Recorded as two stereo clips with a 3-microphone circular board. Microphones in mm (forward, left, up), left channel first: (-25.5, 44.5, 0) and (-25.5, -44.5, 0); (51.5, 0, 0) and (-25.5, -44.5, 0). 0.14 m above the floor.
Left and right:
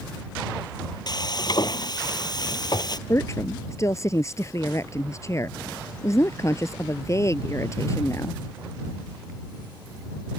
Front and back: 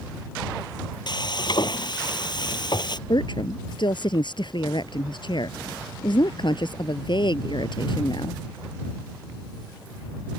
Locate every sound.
1.1 s frying: 55° left
3.1 s a woman speaking: 40° left